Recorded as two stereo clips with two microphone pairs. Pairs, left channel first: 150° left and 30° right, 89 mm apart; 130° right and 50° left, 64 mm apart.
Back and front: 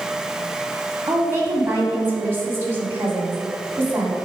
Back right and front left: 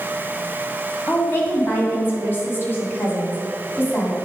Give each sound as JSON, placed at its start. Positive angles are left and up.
{"t": 1.1, "sound": "a woman speaking", "azimuth_deg": -85, "distance_m": 2.0}